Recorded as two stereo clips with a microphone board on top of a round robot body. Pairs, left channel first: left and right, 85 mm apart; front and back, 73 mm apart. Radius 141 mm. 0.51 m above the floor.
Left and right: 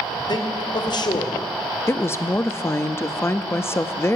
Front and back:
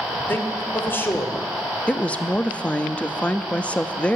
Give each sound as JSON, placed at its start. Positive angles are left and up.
{"t": 0.3, "sound": "a man speaking", "azimuth_deg": 60, "distance_m": 1.8}
{"t": 1.9, "sound": "a woman speaking", "azimuth_deg": 60, "distance_m": 0.9}